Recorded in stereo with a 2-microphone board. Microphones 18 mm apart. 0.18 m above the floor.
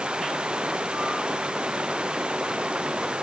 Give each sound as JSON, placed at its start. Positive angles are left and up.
{"t": 0.0, "sound": "running water", "side_deg": -80}